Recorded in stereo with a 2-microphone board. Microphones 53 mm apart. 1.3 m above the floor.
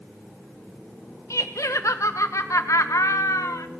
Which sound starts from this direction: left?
Laughter, at 1.3 s.